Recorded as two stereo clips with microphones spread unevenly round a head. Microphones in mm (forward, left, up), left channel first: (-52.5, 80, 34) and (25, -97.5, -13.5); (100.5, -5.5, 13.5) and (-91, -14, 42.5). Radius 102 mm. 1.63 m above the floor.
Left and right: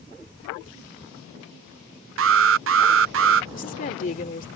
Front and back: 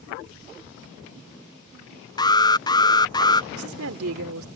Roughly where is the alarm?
Ahead right.